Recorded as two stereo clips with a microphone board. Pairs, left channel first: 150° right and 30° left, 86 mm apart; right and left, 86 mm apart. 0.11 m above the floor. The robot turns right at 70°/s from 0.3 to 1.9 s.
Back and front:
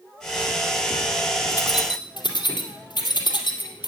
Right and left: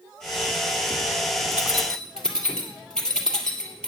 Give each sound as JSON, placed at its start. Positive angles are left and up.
{"t": 1.5, "sound": "keys jangling", "azimuth_deg": 165, "distance_m": 2.0}